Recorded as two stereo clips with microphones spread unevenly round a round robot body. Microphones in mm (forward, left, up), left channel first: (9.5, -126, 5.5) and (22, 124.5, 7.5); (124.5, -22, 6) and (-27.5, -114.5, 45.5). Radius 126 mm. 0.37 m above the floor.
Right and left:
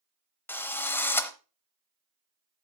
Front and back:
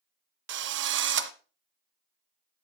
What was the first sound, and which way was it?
A drill, 175° right.